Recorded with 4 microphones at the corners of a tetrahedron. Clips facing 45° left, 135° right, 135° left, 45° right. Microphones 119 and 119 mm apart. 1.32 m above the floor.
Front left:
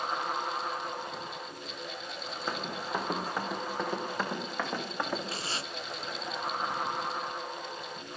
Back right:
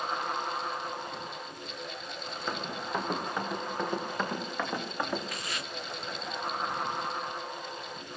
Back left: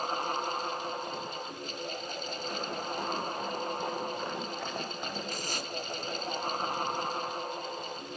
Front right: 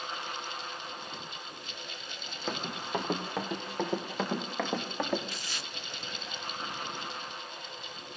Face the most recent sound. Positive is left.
turn(degrees=100)